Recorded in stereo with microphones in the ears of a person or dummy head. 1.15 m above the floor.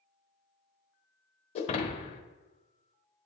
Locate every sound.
1.6 s breaking glass: 35° left (ahead or behind), 0.7 m